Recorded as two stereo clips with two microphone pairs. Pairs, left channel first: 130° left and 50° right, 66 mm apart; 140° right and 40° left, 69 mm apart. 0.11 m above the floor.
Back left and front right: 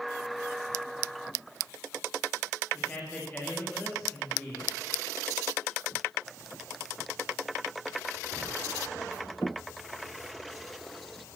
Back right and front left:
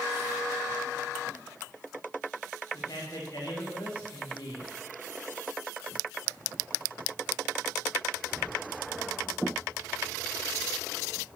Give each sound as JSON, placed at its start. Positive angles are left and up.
{"t": 2.7, "sound": "a man speaking", "azimuth_deg": -160, "distance_m": 10.0}